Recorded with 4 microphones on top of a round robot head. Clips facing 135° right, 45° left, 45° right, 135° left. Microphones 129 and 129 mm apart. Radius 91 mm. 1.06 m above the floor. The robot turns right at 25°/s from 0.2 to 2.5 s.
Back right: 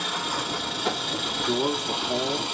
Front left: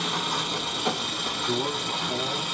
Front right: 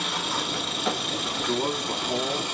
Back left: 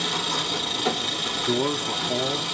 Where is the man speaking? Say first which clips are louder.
Back right 3 dB, back left 3 dB; 165° left, 0.9 m; by 2.4 s 170° right, 0.9 m.